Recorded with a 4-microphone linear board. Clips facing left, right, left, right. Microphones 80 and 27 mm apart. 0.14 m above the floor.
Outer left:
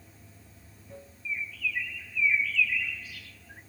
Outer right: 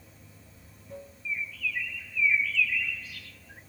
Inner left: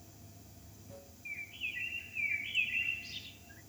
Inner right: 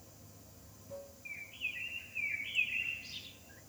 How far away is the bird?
About 0.7 m.